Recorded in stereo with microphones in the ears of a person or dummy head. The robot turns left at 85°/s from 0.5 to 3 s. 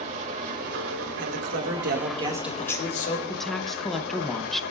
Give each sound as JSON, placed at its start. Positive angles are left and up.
{"t": 0.0, "sound": "an engine running", "azimuth_deg": -40, "distance_m": 2.0}
{"t": 1.2, "sound": "a man speaking", "azimuth_deg": -65, "distance_m": 2.0}
{"t": 3.3, "sound": "a woman speaking", "side_deg": 0, "distance_m": 0.8}